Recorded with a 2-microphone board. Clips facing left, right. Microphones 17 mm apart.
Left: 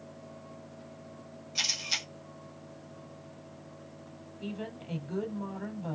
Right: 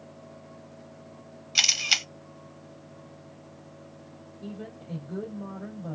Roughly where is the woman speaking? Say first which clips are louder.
Left 1 dB; left.